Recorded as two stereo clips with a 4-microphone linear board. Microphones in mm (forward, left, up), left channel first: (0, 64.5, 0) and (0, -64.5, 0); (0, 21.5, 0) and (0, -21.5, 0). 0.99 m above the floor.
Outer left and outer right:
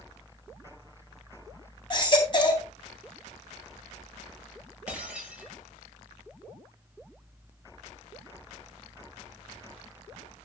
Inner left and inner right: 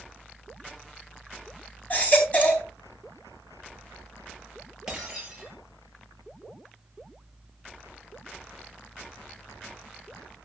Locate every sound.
1.9 s a baby crying: 35° left (ahead or behind), 3.5 m
4.9 s breaking glass: 10° right (ahead or behind), 5.5 m